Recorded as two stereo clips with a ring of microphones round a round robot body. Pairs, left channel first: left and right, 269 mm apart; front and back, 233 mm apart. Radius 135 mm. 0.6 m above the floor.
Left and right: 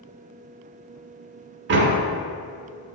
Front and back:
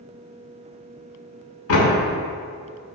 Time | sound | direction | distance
1.7 | a door slam | 40° right | 1.2 m